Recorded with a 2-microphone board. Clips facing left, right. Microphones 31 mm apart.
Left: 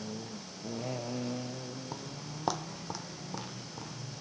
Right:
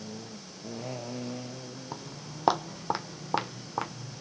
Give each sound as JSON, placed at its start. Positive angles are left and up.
{"t": 1.9, "sound": "footsteps", "side_deg": -15, "distance_m": 0.9}